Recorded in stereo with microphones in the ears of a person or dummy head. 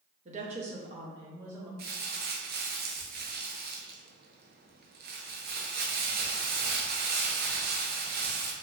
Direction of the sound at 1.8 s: 50° right (ahead or behind).